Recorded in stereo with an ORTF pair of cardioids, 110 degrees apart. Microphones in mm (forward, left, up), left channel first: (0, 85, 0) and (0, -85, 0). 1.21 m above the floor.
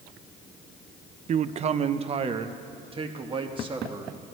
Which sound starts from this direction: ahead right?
A man speaking, at 1.3 s.